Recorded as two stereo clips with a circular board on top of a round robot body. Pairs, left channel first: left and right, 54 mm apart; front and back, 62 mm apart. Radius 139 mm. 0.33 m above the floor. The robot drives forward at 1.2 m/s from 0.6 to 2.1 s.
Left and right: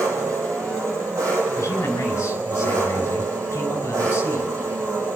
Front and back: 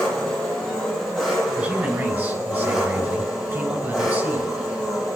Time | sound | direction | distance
0.0 | an engine running | 85° right | 5 m
1.6 | a man speaking | 115° left | 3.5 m